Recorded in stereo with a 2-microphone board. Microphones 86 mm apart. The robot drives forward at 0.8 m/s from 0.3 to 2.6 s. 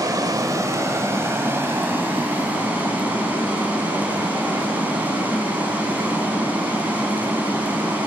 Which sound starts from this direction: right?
Running water, at 0.0 s.